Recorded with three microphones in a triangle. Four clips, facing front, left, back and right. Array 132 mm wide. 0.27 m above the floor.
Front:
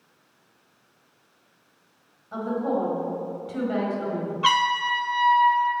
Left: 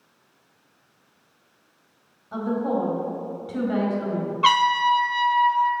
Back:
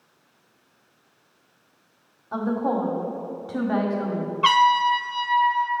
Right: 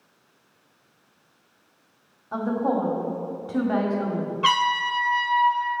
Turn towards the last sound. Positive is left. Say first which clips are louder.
# left 4 dB, back 5 dB
turn(degrees=115)